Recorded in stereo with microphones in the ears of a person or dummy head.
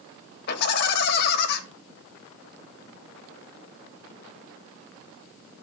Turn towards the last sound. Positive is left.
turn(degrees=55)  # may be behind; listen again after turning